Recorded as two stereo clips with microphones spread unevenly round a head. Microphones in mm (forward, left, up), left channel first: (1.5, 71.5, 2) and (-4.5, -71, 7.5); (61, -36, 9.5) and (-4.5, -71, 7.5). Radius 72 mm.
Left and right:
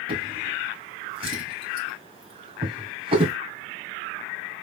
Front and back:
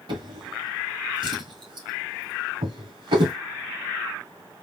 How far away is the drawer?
About 2 m.